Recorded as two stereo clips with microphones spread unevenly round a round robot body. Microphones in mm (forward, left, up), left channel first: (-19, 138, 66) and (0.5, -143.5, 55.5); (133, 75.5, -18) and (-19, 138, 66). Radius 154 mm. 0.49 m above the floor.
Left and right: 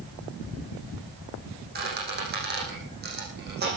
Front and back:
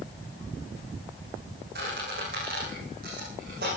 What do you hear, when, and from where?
1.8 s a squeak: 145° right, 8 m